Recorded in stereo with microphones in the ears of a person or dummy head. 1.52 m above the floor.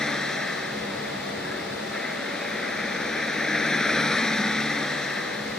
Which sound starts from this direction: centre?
A vehicle, at 0.0 s.